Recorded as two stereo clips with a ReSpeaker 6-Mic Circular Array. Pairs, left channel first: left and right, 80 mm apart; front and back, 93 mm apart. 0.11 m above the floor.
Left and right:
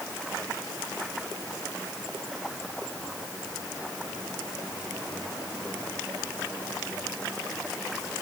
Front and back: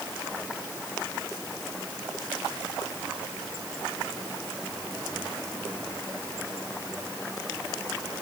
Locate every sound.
Only background noise.